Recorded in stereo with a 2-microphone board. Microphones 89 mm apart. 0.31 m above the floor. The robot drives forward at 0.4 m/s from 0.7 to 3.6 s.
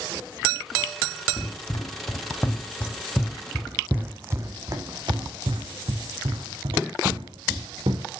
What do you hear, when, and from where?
1.4 s running footsteps: 50° left (ahead or behind), 1.4 m; by 8.1 s 80° right, 2.5 m